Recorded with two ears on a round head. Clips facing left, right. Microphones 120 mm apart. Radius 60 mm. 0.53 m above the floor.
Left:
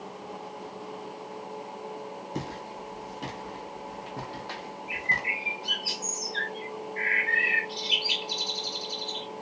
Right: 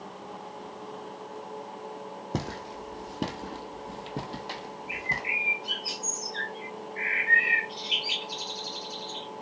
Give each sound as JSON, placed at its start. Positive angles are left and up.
{"t": 2.3, "sound": "footsteps", "side_deg": -65, "distance_m": 1.2}
{"t": 4.9, "sound": "a bird", "side_deg": 45, "distance_m": 1.9}